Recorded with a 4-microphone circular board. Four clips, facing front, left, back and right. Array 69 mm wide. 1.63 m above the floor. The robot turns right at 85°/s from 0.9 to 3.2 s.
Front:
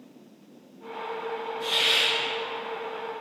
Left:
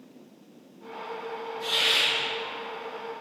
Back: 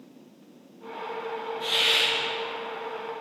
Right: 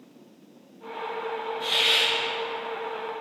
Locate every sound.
1.6 s a hiss: 120° right, 1.0 m; by 2.1 s 80° right, 1.0 m